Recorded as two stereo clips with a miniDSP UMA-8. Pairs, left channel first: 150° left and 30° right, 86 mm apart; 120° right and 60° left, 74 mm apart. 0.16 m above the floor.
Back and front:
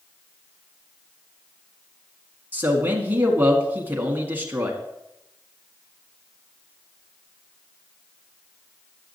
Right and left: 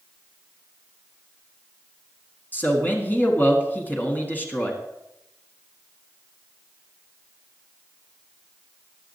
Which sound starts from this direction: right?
A man speaking, at 2.5 s.